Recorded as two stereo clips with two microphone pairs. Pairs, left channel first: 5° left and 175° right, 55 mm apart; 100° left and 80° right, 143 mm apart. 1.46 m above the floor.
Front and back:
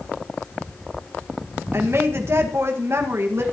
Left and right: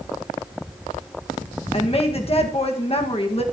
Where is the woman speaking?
145° left, 1.9 m.